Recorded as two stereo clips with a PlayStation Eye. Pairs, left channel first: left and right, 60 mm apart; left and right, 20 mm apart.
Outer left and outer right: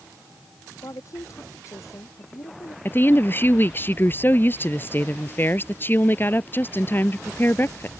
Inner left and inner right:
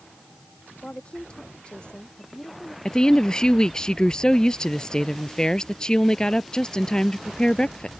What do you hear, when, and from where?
0.8 s a woman speaking: 60° left (ahead or behind)
2.9 s a woman speaking: 35° left (ahead or behind)